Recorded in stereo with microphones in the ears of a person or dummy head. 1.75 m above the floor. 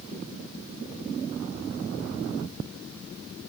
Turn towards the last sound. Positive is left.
No sound to turn to.